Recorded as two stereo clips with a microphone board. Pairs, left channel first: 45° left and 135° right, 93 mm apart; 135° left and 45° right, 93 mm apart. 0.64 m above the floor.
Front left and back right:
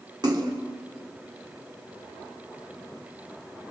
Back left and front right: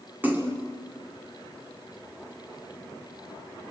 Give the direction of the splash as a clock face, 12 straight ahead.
4 o'clock.